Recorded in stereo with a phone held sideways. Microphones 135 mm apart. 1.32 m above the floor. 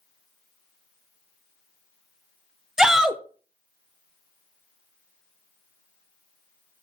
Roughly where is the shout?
Centre.